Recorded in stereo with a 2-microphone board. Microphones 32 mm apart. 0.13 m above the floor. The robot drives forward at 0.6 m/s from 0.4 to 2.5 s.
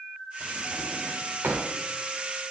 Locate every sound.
0.4 s a drawer: 85° right, 5.5 m; by 1.7 s 80° right, 6 m